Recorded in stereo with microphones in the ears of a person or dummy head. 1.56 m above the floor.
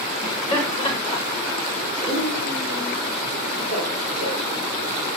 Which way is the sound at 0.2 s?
30° left (ahead or behind).